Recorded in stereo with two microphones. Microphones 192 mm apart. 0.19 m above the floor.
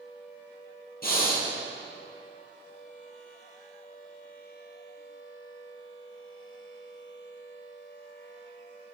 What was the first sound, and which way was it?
Breathing, 45° left (ahead or behind).